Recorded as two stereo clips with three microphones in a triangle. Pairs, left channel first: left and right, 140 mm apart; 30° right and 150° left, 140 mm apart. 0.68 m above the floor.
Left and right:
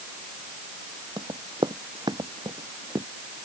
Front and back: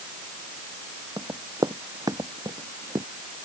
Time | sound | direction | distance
1.2 | running footsteps | 145° right | ?